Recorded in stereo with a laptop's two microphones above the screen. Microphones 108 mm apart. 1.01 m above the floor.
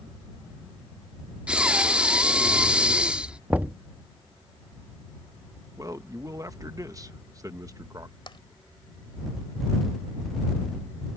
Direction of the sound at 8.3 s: 50° left (ahead or behind).